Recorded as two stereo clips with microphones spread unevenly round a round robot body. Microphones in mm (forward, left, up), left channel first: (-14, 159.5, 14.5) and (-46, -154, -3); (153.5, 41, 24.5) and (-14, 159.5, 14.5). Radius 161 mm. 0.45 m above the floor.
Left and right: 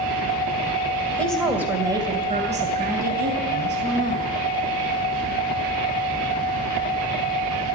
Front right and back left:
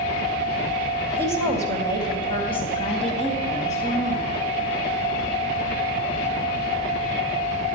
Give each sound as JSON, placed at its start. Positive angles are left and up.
{"t": 1.2, "sound": "a woman speaking", "azimuth_deg": 170, "distance_m": 2.5}